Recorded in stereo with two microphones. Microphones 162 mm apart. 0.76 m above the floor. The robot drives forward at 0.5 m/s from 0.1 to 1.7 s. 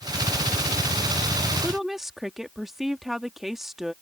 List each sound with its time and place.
1.6 s a woman speaking: centre (ahead or behind)